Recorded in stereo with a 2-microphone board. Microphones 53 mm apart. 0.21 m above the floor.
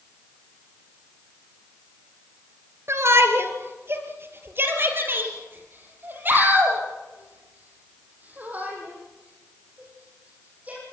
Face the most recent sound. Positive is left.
turn(degrees=-30)  # may be behind; listen again after turning